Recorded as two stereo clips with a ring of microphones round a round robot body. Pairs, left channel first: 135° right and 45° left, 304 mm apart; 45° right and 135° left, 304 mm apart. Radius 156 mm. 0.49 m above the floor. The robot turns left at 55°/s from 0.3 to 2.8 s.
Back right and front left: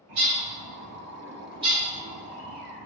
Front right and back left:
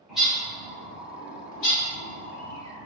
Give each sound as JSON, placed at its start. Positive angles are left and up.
{"t": 0.1, "sound": "a bird", "azimuth_deg": 45, "distance_m": 1.2}